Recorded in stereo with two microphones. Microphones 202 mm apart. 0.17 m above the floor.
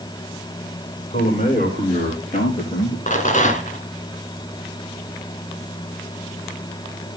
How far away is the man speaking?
About 7 m.